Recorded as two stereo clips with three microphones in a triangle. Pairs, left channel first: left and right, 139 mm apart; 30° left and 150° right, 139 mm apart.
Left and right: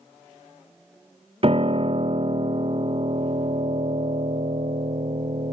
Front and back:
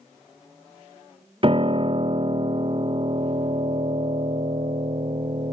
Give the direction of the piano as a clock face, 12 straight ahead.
4 o'clock.